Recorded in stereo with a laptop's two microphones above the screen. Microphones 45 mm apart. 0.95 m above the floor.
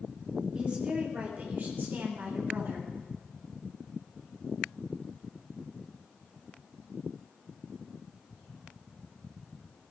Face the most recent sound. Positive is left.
turn(degrees=-60)  # may be behind; listen again after turning